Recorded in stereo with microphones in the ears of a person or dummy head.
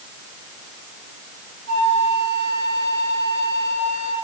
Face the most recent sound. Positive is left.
turn(degrees=-85)